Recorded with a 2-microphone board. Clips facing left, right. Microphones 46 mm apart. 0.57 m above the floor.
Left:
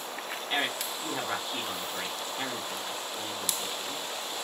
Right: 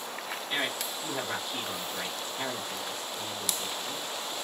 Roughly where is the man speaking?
Left.